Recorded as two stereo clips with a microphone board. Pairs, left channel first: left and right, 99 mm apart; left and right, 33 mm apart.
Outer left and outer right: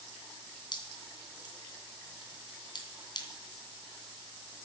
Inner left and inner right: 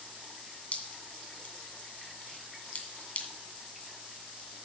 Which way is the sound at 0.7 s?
45° left (ahead or behind).